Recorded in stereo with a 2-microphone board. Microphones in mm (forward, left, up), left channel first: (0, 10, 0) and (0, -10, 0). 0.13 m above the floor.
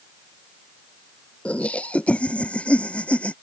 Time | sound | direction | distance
1.4 | laughter | 80° left | ?